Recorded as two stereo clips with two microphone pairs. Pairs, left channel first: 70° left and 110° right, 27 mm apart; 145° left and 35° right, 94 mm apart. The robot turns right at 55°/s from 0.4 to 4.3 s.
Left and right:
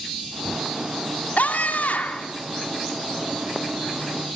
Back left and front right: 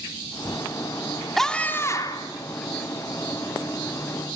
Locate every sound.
1.4 s a scream: 55° left, 2.5 m; by 2.3 s 105° left, 2.5 m